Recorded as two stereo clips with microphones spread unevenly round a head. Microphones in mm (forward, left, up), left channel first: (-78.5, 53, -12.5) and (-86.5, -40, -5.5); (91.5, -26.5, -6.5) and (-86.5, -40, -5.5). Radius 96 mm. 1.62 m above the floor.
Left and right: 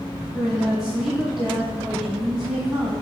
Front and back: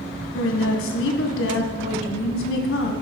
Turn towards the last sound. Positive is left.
turn(degrees=-5)